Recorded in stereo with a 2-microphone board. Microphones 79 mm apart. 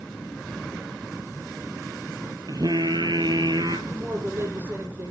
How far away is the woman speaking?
About 6.5 m.